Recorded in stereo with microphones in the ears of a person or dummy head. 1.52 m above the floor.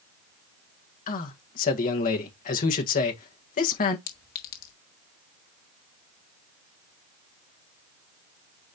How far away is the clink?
About 1.1 m.